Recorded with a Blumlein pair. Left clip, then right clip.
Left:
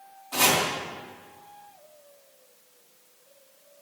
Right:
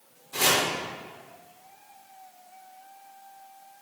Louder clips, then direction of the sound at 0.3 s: Left 1 dB; 50° left.